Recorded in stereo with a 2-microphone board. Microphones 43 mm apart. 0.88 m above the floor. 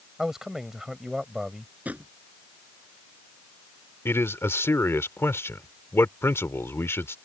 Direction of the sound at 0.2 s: 10° right (ahead or behind).